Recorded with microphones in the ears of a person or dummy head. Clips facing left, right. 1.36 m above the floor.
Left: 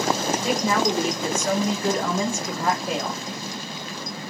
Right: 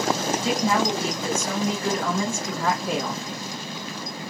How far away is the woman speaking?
About 1.2 m.